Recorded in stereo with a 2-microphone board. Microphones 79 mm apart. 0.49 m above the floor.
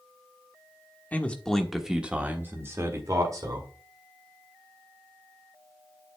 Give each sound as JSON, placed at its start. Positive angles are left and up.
{"t": 1.1, "sound": "a man speaking", "side_deg": 20, "distance_m": 1.2}